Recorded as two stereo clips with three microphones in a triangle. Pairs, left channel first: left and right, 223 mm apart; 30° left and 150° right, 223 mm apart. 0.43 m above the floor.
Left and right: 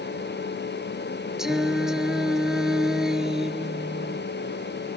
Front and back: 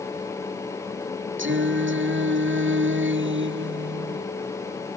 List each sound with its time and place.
1.4 s singing: straight behind